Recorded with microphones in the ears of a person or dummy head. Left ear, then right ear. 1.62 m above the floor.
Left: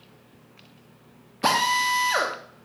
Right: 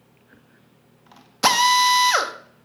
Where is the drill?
50° right (ahead or behind), 0.8 m.